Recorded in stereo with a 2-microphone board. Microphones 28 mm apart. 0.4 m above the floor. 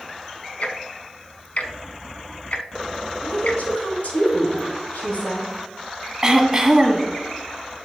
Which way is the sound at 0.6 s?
60° left (ahead or behind).